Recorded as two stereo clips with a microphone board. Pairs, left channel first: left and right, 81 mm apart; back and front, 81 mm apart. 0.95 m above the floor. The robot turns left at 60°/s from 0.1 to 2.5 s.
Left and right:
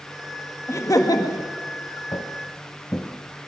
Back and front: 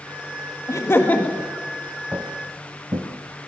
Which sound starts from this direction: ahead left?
Footsteps, at 2.1 s.